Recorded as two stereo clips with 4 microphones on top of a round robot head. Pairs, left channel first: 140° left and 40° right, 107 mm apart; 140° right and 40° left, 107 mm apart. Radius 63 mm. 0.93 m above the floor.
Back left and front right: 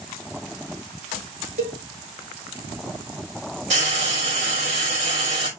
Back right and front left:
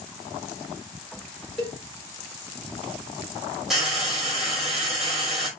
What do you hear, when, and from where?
1.6 s a cowbell: 45° right, 7.5 m
3.7 s frying: 45° right, 5 m